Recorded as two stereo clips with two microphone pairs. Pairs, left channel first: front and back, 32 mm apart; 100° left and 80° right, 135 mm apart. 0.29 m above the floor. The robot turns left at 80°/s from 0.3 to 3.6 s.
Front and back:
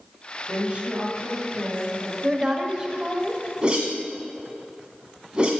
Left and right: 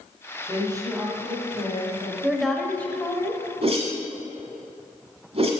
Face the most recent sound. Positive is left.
turn(degrees=-120)